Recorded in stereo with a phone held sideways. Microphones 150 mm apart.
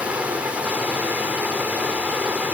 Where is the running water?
10° right (ahead or behind), 1.7 m.